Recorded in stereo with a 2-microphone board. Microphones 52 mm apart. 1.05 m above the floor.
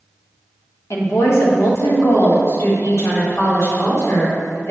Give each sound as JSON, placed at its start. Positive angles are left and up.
{"t": 0.9, "sound": "a woman speaking", "side_deg": 65, "distance_m": 1.0}